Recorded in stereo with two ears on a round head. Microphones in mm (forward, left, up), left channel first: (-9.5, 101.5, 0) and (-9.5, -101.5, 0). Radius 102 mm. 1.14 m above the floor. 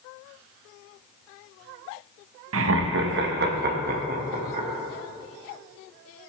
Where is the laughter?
65° right (ahead or behind), 1.0 m; by 4.7 s 35° right (ahead or behind), 2 m.